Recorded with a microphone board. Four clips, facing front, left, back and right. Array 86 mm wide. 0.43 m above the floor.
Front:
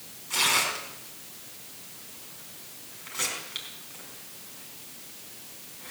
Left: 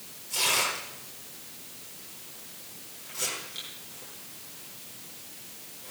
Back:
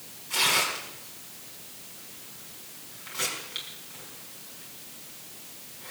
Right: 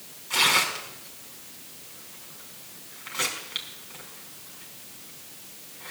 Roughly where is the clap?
I don't hear a clap.